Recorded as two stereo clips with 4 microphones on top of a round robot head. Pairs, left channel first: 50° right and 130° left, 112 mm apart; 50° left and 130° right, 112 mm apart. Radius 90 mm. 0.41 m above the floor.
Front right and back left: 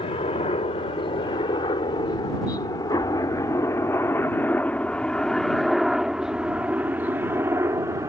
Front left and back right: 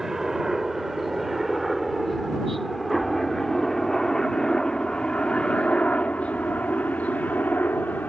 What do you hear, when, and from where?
0.0 s a helicopter: 45° right; by 8.1 s 110° left